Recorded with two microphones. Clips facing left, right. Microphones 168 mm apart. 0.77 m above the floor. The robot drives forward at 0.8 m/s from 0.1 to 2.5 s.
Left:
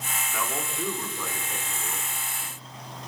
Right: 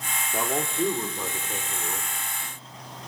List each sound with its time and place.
0.3 s a man speaking: 35° right (ahead or behind), 2 m; by 2.1 s 25° right (ahead or behind), 3.5 m